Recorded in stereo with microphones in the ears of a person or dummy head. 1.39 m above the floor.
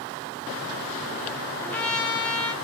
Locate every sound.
1.6 s a trumpet: 10° left (ahead or behind), 1.0 m